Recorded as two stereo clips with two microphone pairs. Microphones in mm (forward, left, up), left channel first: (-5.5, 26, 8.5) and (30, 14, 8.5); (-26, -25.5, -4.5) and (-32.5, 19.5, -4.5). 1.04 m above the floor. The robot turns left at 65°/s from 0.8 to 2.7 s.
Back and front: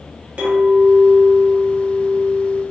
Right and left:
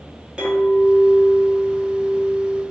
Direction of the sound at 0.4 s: 30° left.